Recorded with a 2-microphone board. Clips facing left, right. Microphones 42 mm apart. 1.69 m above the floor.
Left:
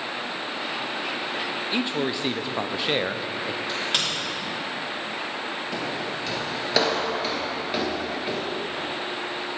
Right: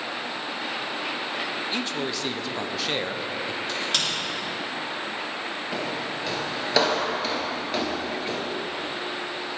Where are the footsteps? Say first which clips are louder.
Right 1 dB; 5° right (ahead or behind), 1.9 m; by 8.4 s 15° left (ahead or behind), 1.7 m.